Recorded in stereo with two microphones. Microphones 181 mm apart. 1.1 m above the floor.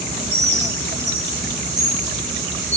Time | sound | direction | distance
0.3 | a bird | 40° right (ahead or behind) | 4 m